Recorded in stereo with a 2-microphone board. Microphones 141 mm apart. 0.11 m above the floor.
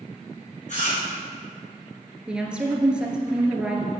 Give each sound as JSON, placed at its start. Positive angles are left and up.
{"t": 0.7, "sound": "chewing", "side_deg": 60, "distance_m": 4.0}
{"t": 2.3, "sound": "a woman speaking", "side_deg": -5, "distance_m": 1.4}